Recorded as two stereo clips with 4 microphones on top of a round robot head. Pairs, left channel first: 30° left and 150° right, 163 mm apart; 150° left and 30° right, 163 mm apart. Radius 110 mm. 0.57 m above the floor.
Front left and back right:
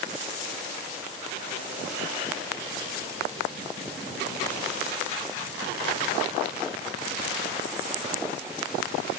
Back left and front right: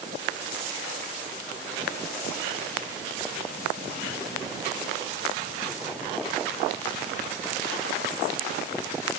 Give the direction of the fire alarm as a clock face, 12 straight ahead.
I don't hear a fire alarm.